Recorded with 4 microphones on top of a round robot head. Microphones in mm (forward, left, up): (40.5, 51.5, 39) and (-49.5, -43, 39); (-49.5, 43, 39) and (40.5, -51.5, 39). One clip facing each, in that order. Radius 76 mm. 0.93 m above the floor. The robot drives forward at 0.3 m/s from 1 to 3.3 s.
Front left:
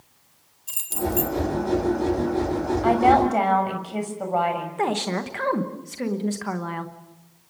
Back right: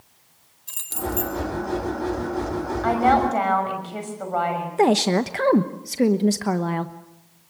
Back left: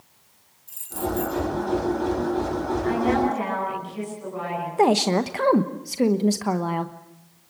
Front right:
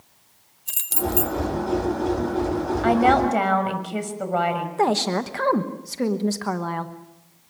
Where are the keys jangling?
35° right, 3 m.